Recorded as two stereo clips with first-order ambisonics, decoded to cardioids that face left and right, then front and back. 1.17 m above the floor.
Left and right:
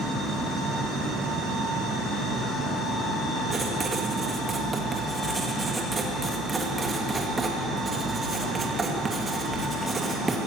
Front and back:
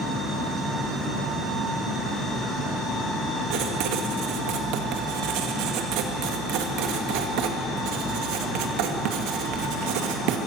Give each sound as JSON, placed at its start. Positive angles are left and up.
{"t": 3.5, "sound": "writing", "azimuth_deg": -165, "distance_m": 2.0}